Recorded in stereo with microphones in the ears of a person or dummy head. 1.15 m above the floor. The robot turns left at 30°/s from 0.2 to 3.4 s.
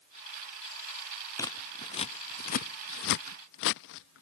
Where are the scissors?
15° left (ahead or behind); by 4.2 s 65° left (ahead or behind).